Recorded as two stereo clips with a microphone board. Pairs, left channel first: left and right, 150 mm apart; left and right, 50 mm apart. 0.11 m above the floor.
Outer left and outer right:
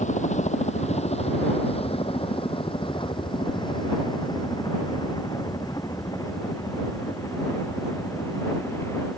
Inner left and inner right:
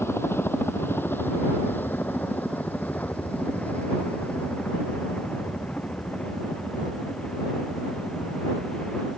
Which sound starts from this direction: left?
A helicopter, at 0.0 s.